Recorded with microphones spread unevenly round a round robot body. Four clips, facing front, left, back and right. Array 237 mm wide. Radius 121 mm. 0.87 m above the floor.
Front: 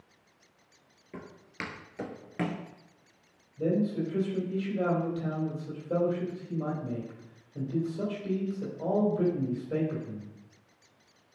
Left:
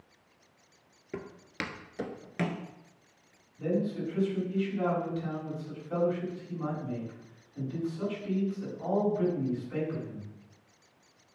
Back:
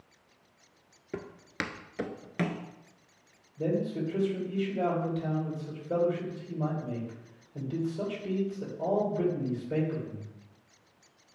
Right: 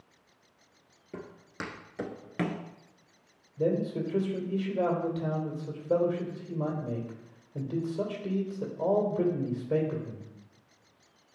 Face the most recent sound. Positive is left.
turn(degrees=-100)